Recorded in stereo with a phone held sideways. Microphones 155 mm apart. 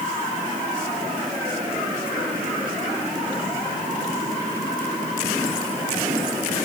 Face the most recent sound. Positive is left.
No sound to turn to.